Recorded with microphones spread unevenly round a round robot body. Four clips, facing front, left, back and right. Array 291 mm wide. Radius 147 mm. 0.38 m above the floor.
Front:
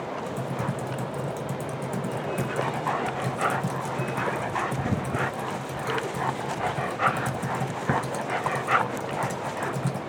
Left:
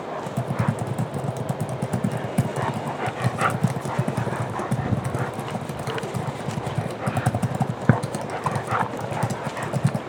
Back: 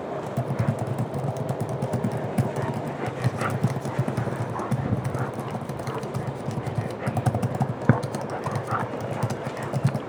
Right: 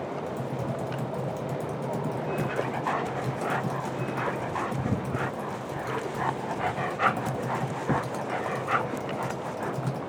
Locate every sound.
0.3 s typing on a keyboard: 110° left, 0.8 m